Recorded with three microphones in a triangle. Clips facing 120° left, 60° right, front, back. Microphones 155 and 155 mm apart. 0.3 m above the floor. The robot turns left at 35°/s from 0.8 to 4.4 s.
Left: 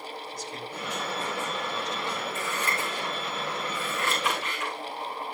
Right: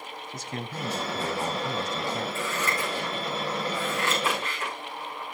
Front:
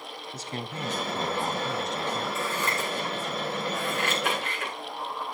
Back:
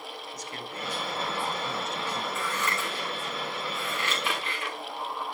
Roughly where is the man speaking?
Ahead right.